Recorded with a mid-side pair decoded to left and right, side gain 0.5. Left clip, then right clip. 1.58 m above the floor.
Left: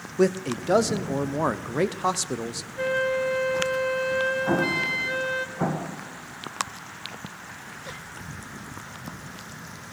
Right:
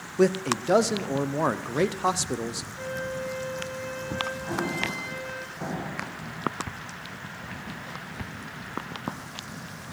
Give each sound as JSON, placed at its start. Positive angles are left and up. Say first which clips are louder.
{"t": 0.2, "sound": "a man speaking", "louder": "even", "azimuth_deg": 5, "distance_m": 0.6}
{"t": 2.8, "sound": "a flute", "louder": "left 10 dB", "azimuth_deg": 65, "distance_m": 0.6}
{"t": 4.5, "sound": "an explosion", "louder": "left 5 dB", "azimuth_deg": 60, "distance_m": 1.6}